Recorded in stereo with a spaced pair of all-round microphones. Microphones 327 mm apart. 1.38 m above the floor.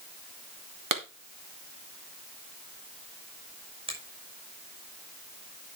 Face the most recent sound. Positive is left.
turn(degrees=-15)  # may be behind; listen again after turning